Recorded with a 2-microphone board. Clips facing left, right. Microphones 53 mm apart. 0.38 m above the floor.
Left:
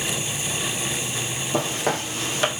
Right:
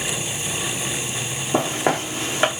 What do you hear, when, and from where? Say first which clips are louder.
1.5 s footsteps: right 4 dB; 25° right (ahead or behind), 1.1 m